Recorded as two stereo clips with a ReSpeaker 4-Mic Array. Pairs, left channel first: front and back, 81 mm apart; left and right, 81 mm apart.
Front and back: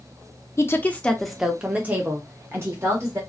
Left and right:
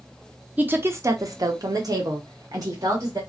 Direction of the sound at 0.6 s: 30° right.